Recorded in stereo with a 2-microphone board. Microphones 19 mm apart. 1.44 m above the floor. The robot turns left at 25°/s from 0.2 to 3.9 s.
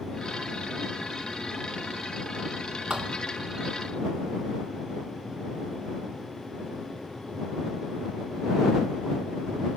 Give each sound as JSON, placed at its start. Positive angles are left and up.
{"t": 2.9, "sound": "a thud", "side_deg": -60}